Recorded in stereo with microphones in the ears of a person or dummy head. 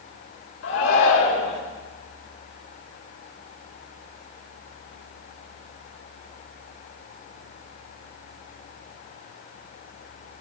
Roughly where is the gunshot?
I don't hear a gunshot.